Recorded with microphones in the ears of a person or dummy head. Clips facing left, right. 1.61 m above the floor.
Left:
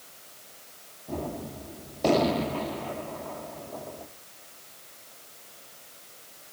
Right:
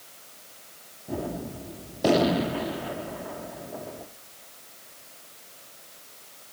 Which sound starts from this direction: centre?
A gunshot, at 1.1 s.